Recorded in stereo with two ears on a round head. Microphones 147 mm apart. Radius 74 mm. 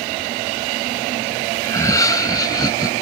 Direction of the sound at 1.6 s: 20° left (ahead or behind).